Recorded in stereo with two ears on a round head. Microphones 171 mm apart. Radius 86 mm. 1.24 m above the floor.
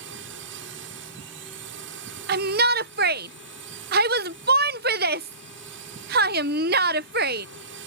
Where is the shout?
50° right (ahead or behind).